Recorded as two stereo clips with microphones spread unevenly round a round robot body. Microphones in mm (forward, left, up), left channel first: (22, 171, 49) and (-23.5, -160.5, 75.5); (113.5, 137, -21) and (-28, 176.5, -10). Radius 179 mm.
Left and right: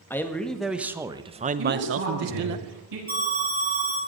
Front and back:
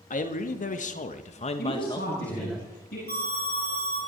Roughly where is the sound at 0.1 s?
Ahead.